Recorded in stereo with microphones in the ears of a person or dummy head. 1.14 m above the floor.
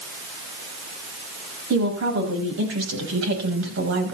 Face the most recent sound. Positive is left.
turn(degrees=-65)  # may be behind; listen again after turning